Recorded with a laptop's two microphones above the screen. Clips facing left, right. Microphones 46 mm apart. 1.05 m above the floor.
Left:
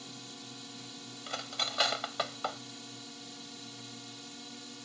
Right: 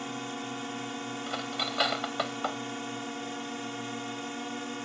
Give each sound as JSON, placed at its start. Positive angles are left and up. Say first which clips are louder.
{"t": 0.0, "sound": "a drone", "louder": "right 12 dB", "side_deg": -45}
{"t": 1.3, "sound": "cutlery clinking", "louder": "right 2 dB", "side_deg": -10}